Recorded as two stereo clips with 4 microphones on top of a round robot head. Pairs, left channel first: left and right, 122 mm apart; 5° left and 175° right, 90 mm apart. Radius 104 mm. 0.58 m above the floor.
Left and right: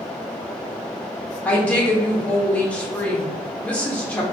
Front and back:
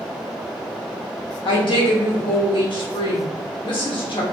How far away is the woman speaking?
About 1.7 m.